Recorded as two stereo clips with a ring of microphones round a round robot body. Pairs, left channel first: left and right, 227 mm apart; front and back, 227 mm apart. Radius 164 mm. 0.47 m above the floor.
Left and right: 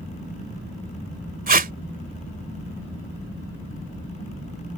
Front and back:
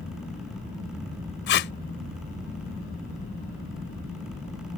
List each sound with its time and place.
1.5 s tape being pulled: 45° right